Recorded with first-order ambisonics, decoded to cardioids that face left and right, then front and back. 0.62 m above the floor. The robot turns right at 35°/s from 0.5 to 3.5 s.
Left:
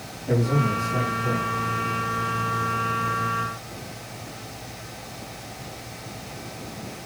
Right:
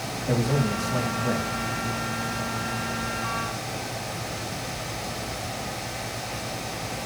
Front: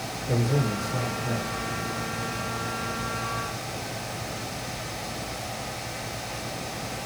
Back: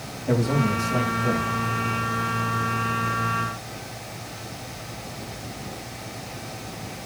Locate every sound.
0.3 s a man speaking: 175° left, 4 m; by 1.4 s 150° right, 4 m